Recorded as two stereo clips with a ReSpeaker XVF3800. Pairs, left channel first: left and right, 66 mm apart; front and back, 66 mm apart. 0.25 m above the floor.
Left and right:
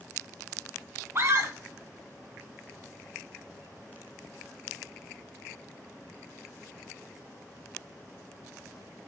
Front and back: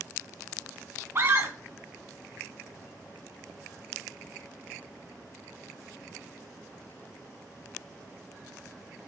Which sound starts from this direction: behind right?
A scream, at 1.1 s.